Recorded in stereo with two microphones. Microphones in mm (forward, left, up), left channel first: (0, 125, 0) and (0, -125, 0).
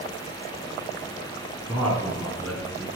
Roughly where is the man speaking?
Centre.